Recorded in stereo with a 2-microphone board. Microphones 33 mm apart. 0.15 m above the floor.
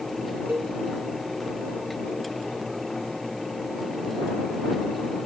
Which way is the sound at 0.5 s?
80° right.